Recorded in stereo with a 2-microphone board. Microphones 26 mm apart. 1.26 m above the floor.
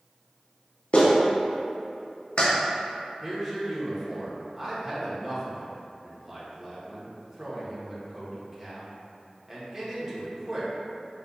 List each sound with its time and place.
0.9 s a clap: 45° left (ahead or behind), 0.8 m
3.2 s a man speaking: 25° right (ahead or behind), 1.1 m